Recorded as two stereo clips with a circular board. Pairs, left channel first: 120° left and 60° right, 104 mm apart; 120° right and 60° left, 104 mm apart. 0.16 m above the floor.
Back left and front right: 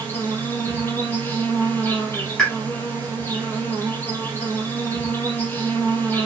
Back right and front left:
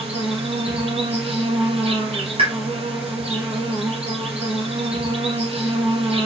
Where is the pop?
35° left, 3 m.